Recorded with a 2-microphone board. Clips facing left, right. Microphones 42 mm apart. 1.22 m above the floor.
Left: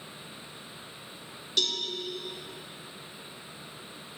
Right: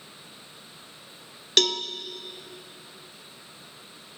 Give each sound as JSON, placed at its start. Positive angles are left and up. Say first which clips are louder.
{"t": 1.6, "sound": "a cowbell", "louder": "right 7 dB", "side_deg": -65, "distance_m": 0.7}